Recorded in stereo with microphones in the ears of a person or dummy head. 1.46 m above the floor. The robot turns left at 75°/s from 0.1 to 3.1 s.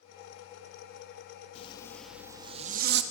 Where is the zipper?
40° left, 1.7 m; by 3.0 s 70° right, 1.7 m.